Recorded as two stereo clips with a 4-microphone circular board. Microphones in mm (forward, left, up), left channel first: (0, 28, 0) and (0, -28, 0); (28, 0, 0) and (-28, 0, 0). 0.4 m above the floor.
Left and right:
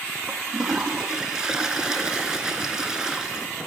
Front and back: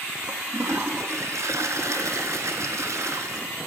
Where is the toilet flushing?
165° right, 0.8 m.